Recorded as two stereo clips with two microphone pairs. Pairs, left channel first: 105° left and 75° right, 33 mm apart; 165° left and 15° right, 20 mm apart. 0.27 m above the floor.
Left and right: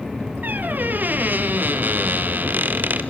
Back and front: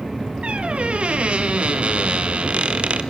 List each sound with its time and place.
0.4 s a squeak: 50° right, 1.3 m